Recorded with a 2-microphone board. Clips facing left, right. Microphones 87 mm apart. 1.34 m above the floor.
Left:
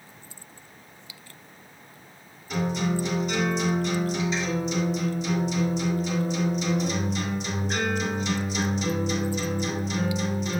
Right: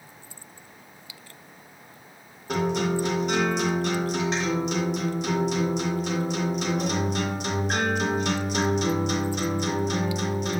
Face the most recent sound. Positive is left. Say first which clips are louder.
# right 2 dB
turn(degrees=-65)  # may be behind; listen again after turning